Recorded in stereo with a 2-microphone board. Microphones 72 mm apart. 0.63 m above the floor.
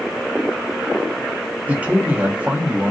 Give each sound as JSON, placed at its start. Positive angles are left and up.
{"t": 1.7, "sound": "a man speaking", "side_deg": -20, "distance_m": 0.5}